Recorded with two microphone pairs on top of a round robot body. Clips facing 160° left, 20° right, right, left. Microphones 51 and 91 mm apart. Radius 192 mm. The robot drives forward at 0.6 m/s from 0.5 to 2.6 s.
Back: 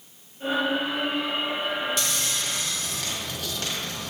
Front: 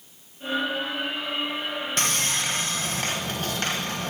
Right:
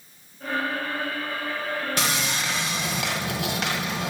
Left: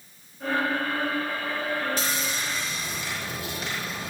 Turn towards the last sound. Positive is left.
turn(degrees=-75)